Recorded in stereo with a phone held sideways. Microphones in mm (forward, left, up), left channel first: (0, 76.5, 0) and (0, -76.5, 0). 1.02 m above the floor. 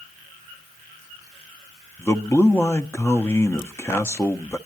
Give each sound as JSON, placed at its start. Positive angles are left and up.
{"t": 2.0, "sound": "a man speaking", "side_deg": 15, "distance_m": 0.7}